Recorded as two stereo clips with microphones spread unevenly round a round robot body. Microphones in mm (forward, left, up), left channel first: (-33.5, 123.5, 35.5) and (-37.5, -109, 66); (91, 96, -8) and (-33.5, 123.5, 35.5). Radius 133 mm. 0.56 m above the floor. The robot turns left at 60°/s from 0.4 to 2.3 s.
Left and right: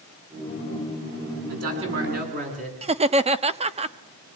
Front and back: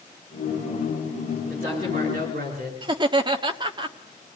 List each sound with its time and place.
1.5 s a man speaking: 100° right, 8.5 m; by 2.8 s 150° right, 8.5 m
2.8 s laughter: 135° right, 1.2 m